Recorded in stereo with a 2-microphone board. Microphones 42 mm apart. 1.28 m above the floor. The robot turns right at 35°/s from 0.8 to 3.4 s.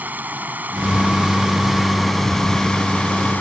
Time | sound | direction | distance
0.0 | running water | 45° right | ?